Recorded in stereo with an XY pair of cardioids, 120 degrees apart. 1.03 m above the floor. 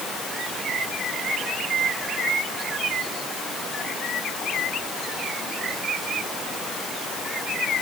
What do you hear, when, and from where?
Only background noise.